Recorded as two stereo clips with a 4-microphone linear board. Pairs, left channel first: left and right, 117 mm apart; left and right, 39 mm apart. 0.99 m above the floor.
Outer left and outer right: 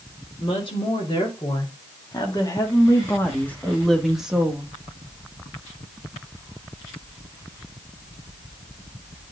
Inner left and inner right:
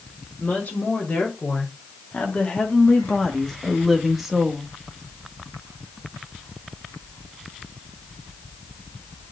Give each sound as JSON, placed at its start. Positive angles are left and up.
{"t": 0.4, "sound": "a woman speaking", "side_deg": 50, "distance_m": 3.0}